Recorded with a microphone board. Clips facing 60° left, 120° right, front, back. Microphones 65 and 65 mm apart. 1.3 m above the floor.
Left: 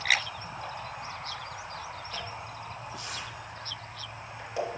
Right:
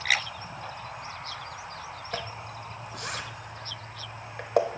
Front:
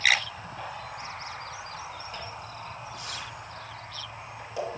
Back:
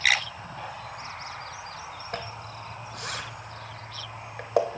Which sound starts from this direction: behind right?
A zipper, at 2.1 s.